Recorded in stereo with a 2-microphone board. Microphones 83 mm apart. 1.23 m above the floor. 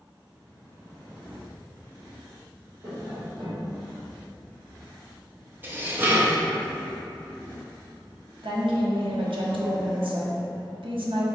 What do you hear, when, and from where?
2.8 s tapping: 75° right (ahead or behind), 1.3 m
5.6 s dishes clattering: 25° right (ahead or behind), 0.6 m
8.4 s a woman speaking: 80° right, 0.6 m